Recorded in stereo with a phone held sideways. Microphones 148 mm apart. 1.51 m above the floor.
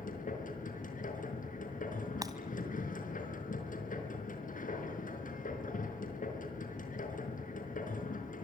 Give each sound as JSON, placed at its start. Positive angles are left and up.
{"t": 0.0, "sound": "a machine running", "side_deg": 65, "distance_m": 5.0}
{"t": 2.2, "sound": "breaking glass", "side_deg": -25, "distance_m": 2.0}